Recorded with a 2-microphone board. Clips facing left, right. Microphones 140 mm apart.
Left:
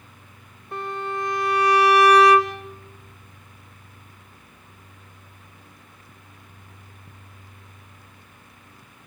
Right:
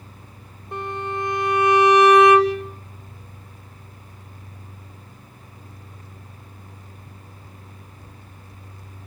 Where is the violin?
20° right (ahead or behind), 3 m.